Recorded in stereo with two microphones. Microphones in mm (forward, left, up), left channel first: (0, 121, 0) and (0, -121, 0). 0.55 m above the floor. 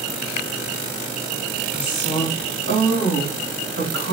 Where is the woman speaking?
45° right (ahead or behind), 1.6 m.